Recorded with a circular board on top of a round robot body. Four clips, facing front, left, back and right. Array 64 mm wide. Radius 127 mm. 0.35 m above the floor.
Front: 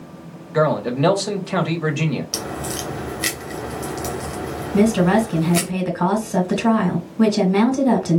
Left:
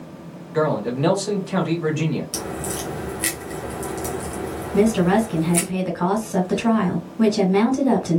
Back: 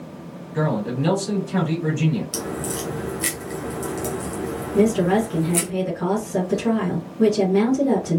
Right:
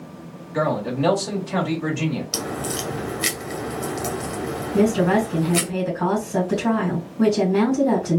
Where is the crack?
45° right, 1.7 m.